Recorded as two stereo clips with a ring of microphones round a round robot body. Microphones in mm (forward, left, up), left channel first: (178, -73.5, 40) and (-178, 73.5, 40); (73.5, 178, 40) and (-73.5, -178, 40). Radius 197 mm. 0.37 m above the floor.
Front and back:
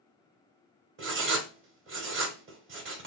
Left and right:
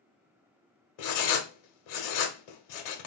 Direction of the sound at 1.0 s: 95° left.